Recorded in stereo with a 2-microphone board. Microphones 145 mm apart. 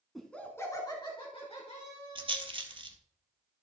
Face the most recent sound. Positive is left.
turn(degrees=-40)  # may be behind; listen again after turning